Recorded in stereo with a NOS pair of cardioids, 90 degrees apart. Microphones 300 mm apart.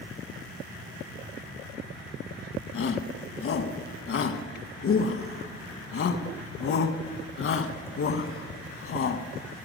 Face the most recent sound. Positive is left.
turn(degrees=45)